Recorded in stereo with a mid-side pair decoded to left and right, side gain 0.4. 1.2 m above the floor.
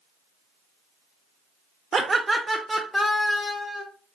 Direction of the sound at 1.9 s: 40° right.